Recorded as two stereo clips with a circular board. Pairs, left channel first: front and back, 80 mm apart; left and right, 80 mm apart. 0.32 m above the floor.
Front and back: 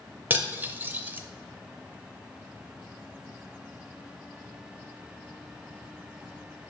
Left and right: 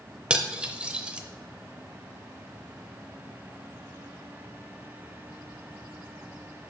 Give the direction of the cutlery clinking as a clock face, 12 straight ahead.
5 o'clock.